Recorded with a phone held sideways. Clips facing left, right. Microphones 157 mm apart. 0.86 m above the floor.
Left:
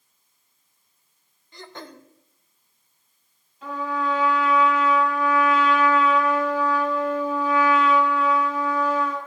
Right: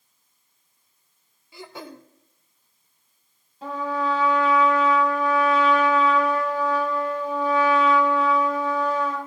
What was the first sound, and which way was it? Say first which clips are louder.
Throat clearing: right 2 dB; 10° right (ahead or behind).